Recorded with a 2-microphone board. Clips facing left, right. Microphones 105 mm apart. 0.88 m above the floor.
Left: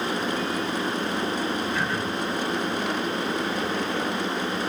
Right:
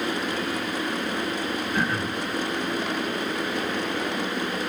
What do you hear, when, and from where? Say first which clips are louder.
1.7 s throat clearing: right 1 dB; 45° right (ahead or behind), 2 m